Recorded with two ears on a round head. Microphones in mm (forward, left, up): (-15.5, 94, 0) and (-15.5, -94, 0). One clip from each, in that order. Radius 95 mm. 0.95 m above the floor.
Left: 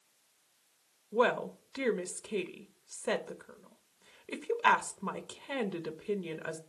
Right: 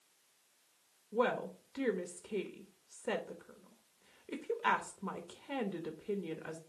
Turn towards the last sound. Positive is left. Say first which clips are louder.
# left 5 dB
turn(degrees=30)  # may be behind; listen again after turning